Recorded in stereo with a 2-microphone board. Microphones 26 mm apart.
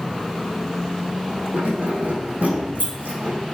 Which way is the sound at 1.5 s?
75° right (ahead or behind).